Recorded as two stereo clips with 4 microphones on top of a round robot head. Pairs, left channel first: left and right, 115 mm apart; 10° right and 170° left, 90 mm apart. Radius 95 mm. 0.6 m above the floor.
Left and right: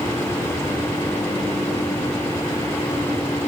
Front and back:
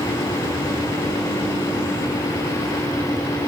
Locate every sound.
Only background noise.